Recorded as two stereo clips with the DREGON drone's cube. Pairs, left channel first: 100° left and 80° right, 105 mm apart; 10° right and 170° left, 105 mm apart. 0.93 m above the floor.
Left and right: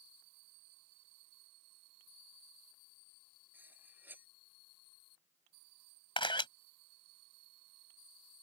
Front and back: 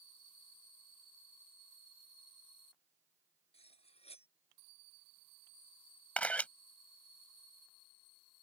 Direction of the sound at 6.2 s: 65° left.